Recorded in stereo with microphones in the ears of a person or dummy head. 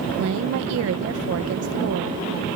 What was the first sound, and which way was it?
A woman speaking, 75° right (ahead or behind).